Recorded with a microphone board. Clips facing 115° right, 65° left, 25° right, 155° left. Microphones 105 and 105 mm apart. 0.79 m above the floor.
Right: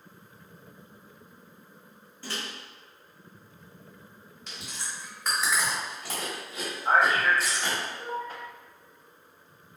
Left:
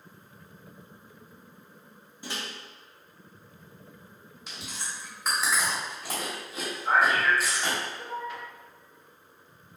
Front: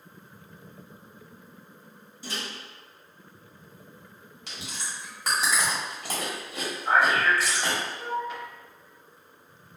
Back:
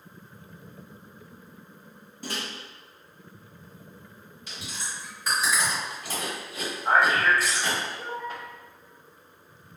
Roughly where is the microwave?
Behind left.